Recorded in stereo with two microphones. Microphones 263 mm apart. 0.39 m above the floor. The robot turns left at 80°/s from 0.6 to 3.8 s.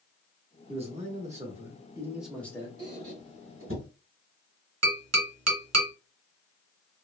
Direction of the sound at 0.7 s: 20° right (ahead or behind).